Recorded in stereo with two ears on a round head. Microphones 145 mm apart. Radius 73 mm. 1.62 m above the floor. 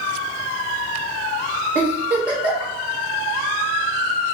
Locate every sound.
1.8 s a giggle: 10° right (ahead or behind), 1.1 m